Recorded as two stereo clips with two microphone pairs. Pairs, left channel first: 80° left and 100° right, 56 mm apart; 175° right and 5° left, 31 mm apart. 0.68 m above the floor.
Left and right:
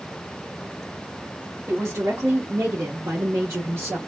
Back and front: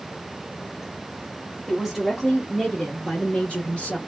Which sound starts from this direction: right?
A woman speaking, at 1.7 s.